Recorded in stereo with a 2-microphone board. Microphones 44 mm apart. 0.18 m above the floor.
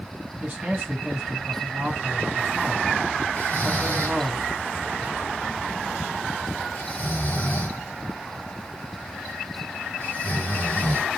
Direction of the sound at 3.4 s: 35° left (ahead or behind).